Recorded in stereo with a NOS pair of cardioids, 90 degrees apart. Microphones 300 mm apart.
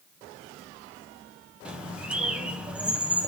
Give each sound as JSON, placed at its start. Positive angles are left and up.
{"t": 1.6, "sound": "a bird", "azimuth_deg": -5, "distance_m": 1.5}